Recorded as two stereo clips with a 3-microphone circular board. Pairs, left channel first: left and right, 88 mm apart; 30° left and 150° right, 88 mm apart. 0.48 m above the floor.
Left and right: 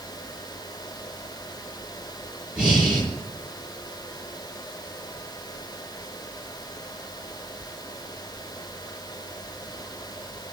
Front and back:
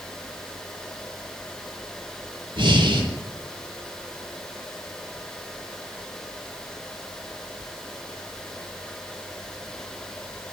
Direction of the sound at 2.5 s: 170° right.